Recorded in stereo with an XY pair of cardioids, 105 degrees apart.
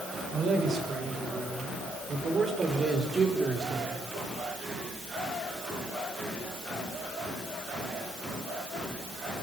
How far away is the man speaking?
About 8 m.